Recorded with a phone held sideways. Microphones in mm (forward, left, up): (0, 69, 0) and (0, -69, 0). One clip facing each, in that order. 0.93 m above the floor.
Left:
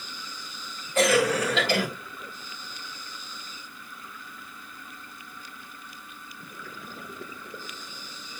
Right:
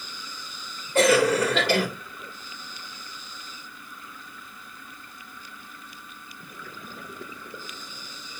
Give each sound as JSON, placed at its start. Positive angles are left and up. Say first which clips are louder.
{"t": 0.9, "sound": "a cough", "louder": "right 3 dB", "side_deg": -80, "distance_m": 3.5}